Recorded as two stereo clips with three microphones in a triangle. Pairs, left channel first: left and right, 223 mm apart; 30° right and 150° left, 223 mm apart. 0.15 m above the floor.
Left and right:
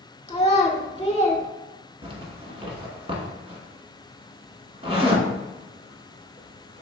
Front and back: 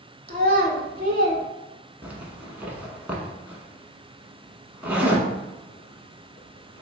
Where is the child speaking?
135° left, 0.9 m.